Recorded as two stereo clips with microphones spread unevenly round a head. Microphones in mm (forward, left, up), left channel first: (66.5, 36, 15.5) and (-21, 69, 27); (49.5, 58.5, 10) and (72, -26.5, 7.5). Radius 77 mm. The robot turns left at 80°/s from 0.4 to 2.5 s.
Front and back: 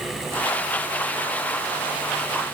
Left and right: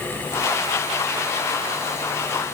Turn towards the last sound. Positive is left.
No sound to turn to.